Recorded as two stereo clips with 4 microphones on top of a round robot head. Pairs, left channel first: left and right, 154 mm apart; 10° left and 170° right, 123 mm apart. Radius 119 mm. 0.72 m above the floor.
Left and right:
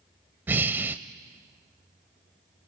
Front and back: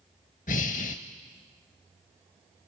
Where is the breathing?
15° right, 0.6 m.